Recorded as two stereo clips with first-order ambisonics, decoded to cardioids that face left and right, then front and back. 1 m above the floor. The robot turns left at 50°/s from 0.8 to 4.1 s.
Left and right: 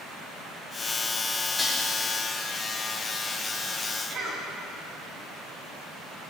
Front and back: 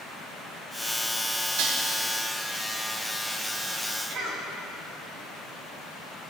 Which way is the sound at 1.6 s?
165° left.